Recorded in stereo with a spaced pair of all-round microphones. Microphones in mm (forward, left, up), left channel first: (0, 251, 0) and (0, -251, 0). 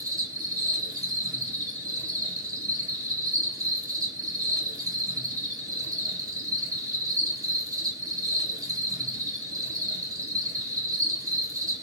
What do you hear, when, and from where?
0.0 s an insect: 5° right (ahead or behind), 1.0 m